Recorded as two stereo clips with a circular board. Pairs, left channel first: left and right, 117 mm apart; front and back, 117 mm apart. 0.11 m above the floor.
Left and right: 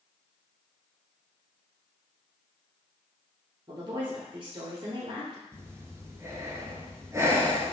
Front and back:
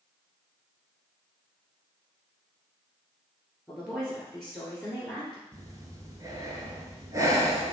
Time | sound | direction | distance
3.7 | a woman speaking | 85° right | 1.7 m
5.5 | breathing | 140° right | 1.0 m